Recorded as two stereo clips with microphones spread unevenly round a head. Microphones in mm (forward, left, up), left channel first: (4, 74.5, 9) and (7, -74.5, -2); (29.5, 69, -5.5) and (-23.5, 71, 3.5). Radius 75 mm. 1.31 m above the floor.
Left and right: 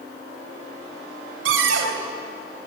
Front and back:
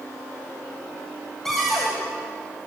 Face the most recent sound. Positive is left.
turn(degrees=-95)